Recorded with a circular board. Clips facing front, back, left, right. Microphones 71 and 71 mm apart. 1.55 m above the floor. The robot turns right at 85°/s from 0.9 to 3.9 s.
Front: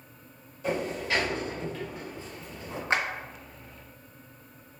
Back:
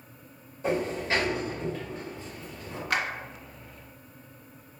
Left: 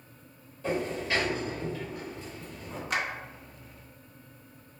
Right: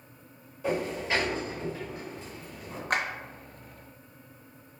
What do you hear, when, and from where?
0.6 s a sliding door: 160° right, 1.4 m; by 2.8 s 5° left, 1.4 m
2.9 s a clap: 60° right, 0.6 m; by 3.0 s 50° right, 0.6 m